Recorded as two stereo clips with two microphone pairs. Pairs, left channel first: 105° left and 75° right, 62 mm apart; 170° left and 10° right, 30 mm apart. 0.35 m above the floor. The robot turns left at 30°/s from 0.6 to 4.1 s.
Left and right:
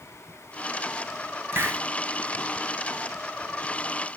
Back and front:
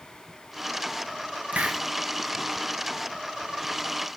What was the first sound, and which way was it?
A hiss, 30° right.